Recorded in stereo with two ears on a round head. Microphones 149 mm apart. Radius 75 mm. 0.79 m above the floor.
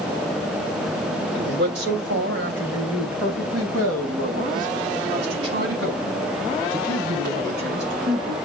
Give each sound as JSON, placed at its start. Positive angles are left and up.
{"t": 1.3, "sound": "a man speaking", "side_deg": -70, "distance_m": 3.0}